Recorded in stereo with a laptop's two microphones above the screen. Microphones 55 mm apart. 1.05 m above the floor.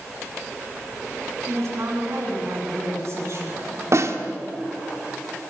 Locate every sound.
1.4 s a woman speaking: 60° right (ahead or behind), 9.5 m
3.9 s a snare drum: 60° right (ahead or behind), 1.8 m